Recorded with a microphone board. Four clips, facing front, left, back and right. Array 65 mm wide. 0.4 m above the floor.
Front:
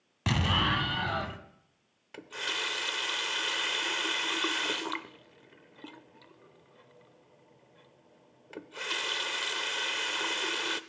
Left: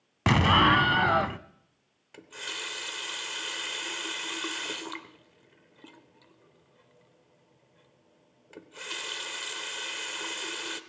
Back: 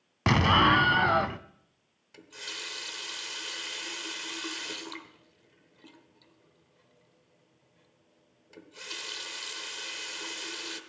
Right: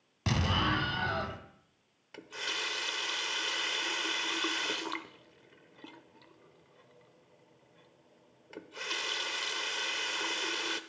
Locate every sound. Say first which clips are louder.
0.3 s an explosion: left 10 dB, back 7 dB; 130° left, 0.6 m
2.1 s a running tap: right 1 dB, front 8 dB; 10° right, 0.8 m